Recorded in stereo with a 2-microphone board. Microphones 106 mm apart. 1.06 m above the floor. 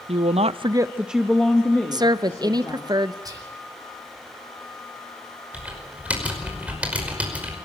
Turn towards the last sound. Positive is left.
turn(degrees=-10)  # may be behind; listen again after turning